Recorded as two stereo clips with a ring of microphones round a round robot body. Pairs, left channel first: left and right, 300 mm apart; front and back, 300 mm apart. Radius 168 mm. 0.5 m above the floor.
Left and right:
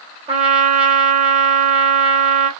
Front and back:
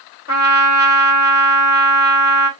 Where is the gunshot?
No gunshot in this recording.